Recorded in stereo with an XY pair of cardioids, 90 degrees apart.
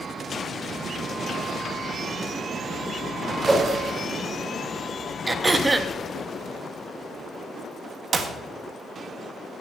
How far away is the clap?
About 1.5 m.